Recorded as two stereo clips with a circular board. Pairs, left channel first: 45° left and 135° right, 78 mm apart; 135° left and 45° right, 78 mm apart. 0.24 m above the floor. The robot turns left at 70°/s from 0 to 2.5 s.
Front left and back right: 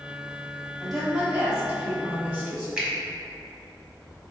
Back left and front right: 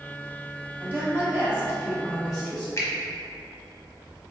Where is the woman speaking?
40° right, 1.7 m; by 2.7 s 160° right, 1.7 m.